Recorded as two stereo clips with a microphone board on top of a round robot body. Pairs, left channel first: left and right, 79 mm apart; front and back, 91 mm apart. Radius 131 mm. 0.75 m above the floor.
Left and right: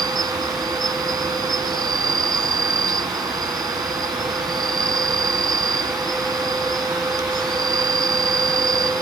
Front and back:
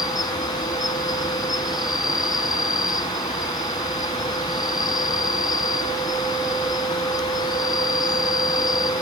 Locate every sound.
0.0 s an insect: 50° right